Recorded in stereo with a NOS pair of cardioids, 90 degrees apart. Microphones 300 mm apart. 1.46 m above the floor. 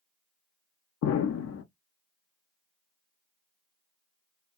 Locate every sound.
1.0 s an explosion: 55° left, 0.7 m